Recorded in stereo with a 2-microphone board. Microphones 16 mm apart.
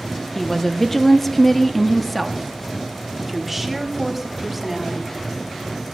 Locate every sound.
0.3 s a woman speaking: 20° left (ahead or behind), 0.8 m; by 5.2 s 10° right (ahead or behind), 2.0 m